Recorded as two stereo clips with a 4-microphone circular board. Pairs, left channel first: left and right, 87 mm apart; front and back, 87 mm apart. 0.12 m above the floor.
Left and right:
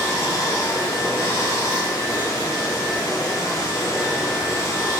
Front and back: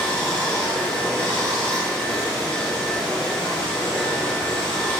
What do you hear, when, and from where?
0.0 s running water: 75° left, 0.9 m